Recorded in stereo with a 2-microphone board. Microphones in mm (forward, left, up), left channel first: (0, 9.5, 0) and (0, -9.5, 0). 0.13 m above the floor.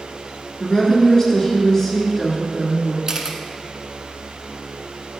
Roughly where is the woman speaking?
Left.